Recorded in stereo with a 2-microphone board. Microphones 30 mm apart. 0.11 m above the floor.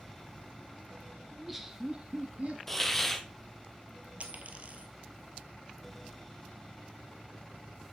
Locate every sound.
1.3 s laughter: 5° left (ahead or behind), 1.4 m; by 2.6 s 50° right (ahead or behind), 1.8 m
2.7 s a hiss: 15° left (ahead or behind), 1.4 m
4.2 s a dropped coin: 50° right (ahead or behind), 1.5 m